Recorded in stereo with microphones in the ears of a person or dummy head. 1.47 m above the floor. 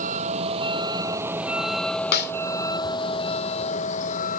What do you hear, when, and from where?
0.0 s a vehicle: 40° right (ahead or behind); by 4.4 s 45° left (ahead or behind)
2.1 s a snare drum: 60° left (ahead or behind)